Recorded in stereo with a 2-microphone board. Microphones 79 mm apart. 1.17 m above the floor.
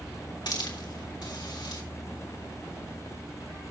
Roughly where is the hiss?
Left.